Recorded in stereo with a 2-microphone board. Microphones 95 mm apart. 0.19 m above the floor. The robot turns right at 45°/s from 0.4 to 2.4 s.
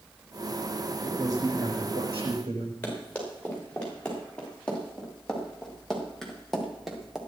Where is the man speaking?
155° right, 7.5 m; by 2.7 s 95° right, 7.5 m.